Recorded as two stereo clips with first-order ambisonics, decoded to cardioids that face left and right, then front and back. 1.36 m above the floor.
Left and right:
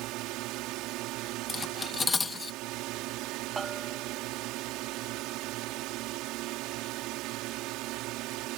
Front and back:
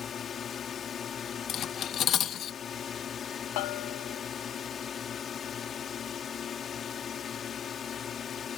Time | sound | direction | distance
0.0 | a drone | 65° right | ?
1.5 | cutlery clinking | 25° left | ?
3.6 | a bell | 15° right | ?